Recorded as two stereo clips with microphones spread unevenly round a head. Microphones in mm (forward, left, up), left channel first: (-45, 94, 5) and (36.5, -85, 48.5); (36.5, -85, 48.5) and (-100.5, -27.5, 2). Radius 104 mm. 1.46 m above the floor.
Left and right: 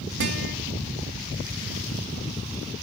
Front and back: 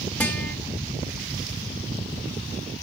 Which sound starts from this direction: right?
A guitar, at 0.2 s.